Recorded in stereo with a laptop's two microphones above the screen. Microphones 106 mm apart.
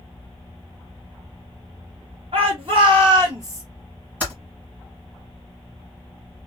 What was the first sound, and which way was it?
A shout, 60° right (ahead or behind).